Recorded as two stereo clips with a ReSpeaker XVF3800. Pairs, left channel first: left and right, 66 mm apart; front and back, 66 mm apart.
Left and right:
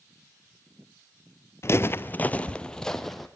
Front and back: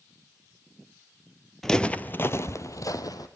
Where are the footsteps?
80° left, 0.8 m; by 3.3 s 5° left, 1.4 m.